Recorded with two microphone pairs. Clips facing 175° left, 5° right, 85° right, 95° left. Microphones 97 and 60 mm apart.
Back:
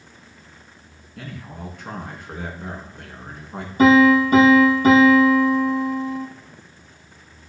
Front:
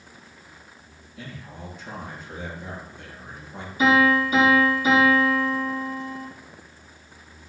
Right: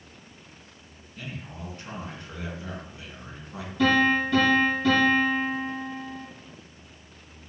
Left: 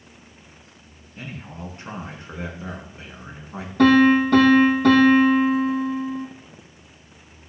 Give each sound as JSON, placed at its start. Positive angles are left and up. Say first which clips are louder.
{"t": 1.2, "sound": "a man speaking", "louder": "back 4 dB, left 3 dB", "azimuth_deg": 155, "distance_m": 3.0}
{"t": 3.8, "sound": "a piano", "louder": "back 6 dB, left 7 dB", "azimuth_deg": 135, "distance_m": 3.0}